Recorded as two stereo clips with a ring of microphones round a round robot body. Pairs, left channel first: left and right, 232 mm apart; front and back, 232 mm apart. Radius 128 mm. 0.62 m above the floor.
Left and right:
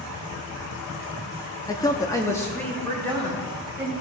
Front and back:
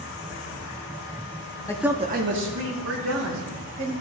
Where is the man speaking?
45° left, 0.7 m; by 3.9 s 175° left, 3 m.